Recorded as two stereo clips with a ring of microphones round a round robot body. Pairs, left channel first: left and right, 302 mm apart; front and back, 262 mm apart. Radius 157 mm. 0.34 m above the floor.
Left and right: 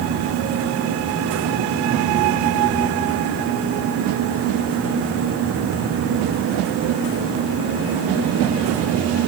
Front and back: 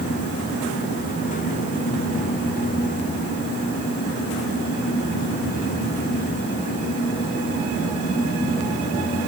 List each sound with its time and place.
Only background noise.